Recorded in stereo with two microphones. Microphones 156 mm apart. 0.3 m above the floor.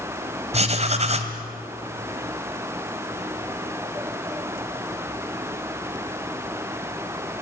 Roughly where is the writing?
Right.